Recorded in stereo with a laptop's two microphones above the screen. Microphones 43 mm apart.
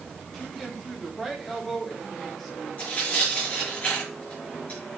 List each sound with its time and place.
0.3 s a woman speaking: 5° left (ahead or behind), 2 m
2.8 s tearing paper: 35° left (ahead or behind), 5 m